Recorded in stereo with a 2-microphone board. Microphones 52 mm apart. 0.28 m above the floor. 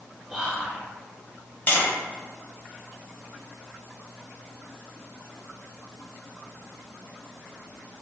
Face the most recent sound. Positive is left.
turn(degrees=35)  # may be behind; listen again after turning